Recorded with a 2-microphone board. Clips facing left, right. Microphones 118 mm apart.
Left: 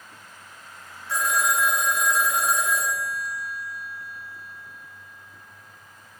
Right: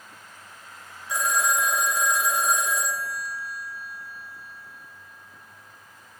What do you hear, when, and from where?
1.1 s a phone ringing: 15° right (ahead or behind), 2.5 m